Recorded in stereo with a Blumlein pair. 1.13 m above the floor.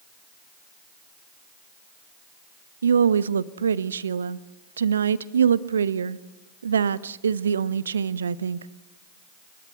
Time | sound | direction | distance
2.8 | a woman speaking | 70° right | 1.1 m